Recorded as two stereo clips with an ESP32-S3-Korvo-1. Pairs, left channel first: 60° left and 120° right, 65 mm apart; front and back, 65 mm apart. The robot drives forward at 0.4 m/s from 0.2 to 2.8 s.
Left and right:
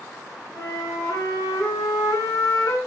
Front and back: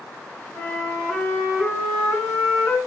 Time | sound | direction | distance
0.6 | a flute | 70° left | 3.5 m